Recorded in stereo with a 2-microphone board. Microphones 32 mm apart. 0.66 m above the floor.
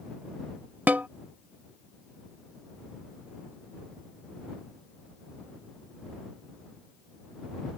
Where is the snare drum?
70° right (ahead or behind).